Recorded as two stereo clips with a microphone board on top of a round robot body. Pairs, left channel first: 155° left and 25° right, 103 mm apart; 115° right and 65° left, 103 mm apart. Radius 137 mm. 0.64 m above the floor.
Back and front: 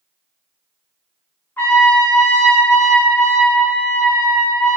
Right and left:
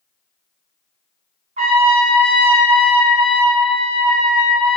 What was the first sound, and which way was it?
A trumpet, 85° left.